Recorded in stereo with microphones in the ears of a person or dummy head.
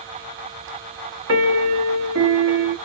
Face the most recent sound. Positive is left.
turn(degrees=-65)  # may be behind; listen again after turning